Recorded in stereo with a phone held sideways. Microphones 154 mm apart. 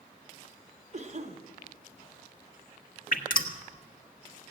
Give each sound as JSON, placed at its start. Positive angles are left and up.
{"t": 0.9, "sound": "a cough", "side_deg": -50, "distance_m": 1.0}
{"t": 3.1, "sound": "dripping", "side_deg": 65, "distance_m": 1.2}